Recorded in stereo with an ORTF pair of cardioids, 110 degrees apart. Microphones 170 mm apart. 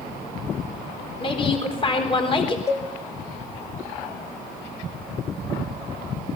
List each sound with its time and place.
1.2 s a woman speaking: 30° left, 4 m
2.7 s a cowbell: 15° left, 2.5 m